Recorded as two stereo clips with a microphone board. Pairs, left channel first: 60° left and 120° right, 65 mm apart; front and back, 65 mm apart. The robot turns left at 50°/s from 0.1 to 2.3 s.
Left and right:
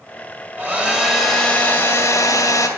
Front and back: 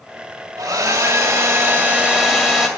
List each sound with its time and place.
0.6 s a hair dryer: straight behind, 2 m; by 2.7 s 95° left, 2 m